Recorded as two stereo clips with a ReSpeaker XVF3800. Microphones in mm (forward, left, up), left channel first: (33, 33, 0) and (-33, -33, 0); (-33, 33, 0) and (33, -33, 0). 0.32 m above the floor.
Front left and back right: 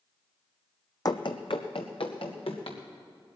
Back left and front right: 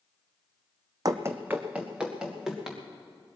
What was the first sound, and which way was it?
Running footsteps, straight ahead.